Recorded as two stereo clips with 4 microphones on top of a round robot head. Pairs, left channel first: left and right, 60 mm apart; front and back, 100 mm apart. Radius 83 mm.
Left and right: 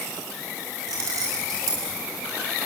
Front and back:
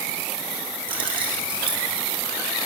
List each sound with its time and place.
0.9 s keys jangling: 135° right, 5 m; by 1.9 s 130° right, 5.5 m